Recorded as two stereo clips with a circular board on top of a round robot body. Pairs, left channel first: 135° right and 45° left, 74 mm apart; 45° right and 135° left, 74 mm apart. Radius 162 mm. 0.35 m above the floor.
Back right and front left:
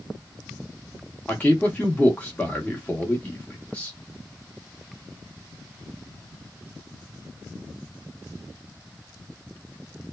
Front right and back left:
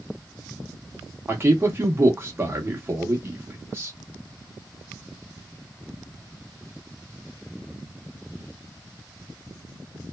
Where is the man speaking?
170° left, 0.9 m.